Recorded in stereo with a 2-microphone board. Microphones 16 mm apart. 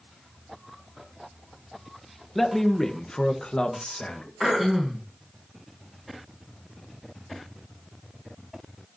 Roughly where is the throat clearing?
Centre.